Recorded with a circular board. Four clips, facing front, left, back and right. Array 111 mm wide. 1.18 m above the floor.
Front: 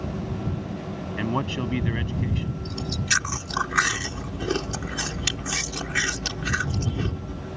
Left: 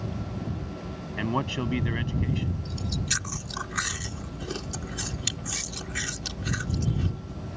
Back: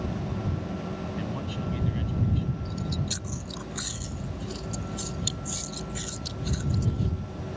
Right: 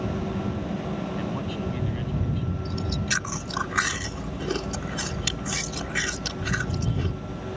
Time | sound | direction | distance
1.2 | a man speaking | 40° left | ?
2.6 | chewing | 20° right | ?